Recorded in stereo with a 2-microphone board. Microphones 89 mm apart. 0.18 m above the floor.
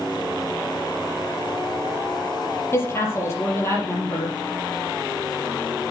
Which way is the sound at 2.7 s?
30° left (ahead or behind).